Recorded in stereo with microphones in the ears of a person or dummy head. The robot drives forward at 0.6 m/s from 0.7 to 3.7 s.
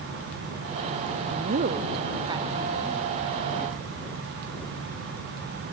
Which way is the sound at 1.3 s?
55° right (ahead or behind).